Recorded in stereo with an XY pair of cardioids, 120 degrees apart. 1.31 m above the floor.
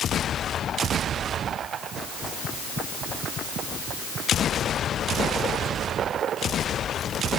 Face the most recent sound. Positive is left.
No sound to turn to.